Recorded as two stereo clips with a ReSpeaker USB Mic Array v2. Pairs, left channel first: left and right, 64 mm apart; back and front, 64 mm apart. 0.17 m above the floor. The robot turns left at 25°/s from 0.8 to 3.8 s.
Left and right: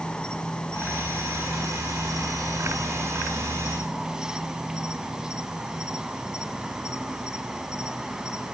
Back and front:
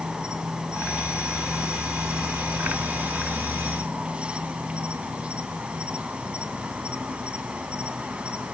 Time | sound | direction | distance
0.0 | an insect | 45° left | 1.8 m